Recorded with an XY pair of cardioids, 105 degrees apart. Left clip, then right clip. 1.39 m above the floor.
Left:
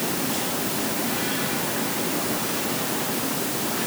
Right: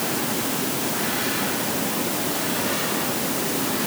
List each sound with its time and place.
Only background noise.